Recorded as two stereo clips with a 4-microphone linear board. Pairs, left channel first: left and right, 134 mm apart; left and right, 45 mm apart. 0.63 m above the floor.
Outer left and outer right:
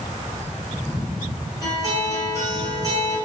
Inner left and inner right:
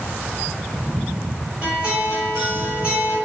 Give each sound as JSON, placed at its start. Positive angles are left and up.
{"t": 1.6, "sound": "a guitar", "side_deg": -25, "distance_m": 1.3}